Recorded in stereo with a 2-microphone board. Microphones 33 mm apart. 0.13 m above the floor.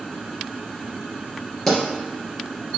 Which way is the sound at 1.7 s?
10° left (ahead or behind).